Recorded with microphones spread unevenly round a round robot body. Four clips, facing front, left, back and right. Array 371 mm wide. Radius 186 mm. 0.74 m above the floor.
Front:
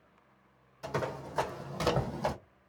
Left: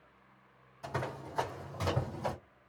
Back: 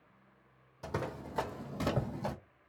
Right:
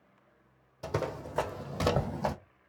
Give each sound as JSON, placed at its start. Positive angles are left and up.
{"t": 0.8, "sound": "running footsteps", "azimuth_deg": -120, "distance_m": 1.4}